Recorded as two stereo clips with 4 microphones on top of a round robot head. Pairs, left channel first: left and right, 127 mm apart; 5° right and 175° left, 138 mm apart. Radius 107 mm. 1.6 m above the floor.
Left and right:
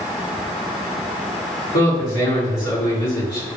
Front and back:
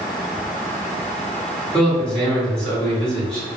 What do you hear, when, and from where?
1.7 s a man speaking: 80° left, 2.0 m